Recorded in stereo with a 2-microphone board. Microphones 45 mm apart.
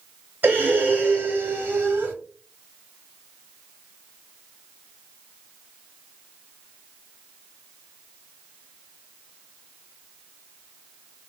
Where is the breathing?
45° right (ahead or behind), 1.5 m.